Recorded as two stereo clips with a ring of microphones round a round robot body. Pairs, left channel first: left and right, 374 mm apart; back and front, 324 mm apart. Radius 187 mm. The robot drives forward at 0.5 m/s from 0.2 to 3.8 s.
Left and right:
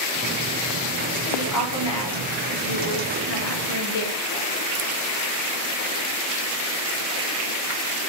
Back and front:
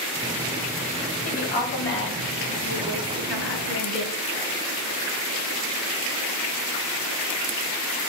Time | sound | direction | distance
1.2 | a woman speaking | 115° left | 1.4 m